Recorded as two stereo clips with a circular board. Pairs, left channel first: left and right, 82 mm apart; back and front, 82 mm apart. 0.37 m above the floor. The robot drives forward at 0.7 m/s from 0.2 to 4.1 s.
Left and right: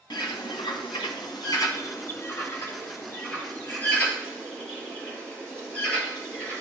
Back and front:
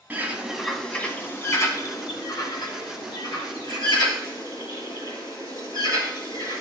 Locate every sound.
0.1 s a bird: 70° left, 0.9 m; by 6.6 s 160° left, 2.5 m